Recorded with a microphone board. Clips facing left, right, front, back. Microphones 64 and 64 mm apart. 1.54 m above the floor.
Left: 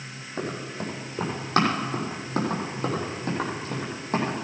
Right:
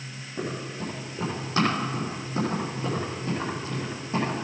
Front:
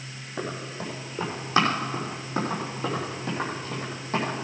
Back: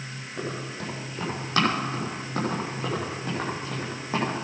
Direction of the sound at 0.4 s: 65° left.